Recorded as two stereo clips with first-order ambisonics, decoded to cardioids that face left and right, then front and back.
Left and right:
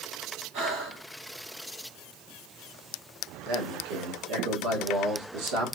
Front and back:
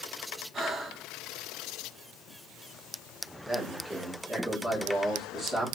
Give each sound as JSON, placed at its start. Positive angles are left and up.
{"t": 0.5, "sound": "breathing", "azimuth_deg": -110, "distance_m": 1.0}
{"t": 3.5, "sound": "a man speaking", "azimuth_deg": -85, "distance_m": 1.3}